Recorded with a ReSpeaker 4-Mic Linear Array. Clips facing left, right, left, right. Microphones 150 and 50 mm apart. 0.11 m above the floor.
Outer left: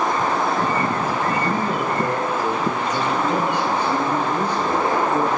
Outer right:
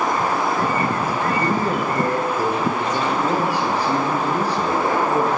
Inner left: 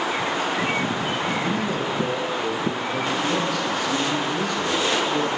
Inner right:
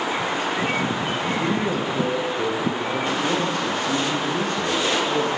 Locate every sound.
1.4 s a man speaking: 35° right (ahead or behind), 1.7 m